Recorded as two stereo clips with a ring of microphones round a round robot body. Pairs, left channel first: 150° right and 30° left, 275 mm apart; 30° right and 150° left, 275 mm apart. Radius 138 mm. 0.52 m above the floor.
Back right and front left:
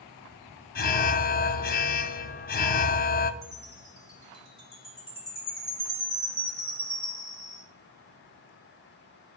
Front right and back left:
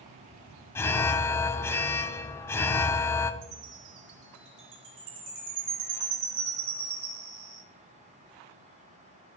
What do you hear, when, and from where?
0.8 s an alarm: 110° right, 0.6 m
3.4 s a chime: 140° left, 3.5 m